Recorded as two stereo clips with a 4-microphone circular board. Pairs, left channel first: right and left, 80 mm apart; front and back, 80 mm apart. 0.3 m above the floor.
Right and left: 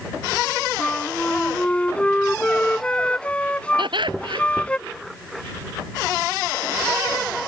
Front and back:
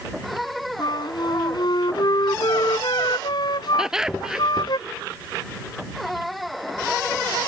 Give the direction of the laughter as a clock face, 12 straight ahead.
9 o'clock.